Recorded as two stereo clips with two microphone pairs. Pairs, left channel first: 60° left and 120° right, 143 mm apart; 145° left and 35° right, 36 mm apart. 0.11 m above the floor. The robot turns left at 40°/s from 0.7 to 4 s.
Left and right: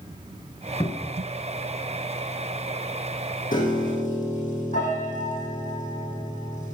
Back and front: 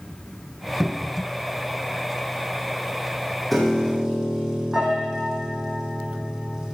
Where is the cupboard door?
40° left, 1.5 m; by 1.3 s 20° left, 1.5 m.